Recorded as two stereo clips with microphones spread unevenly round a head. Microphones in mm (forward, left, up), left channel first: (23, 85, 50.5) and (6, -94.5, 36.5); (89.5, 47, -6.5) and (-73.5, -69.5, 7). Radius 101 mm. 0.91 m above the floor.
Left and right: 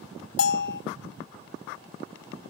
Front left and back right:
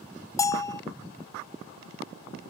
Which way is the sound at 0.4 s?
110° left.